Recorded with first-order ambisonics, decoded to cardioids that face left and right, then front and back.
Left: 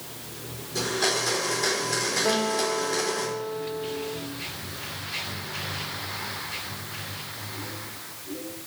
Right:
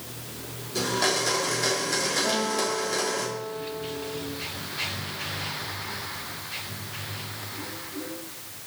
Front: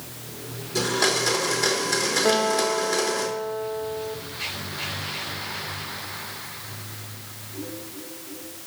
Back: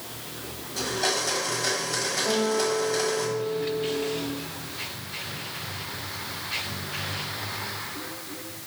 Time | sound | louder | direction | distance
0.8 | a blender | even, front 4 dB | 20° right | 3.5 m
2.2 | a guitar | left 1 dB, front 3 dB | 10° left | 1.1 m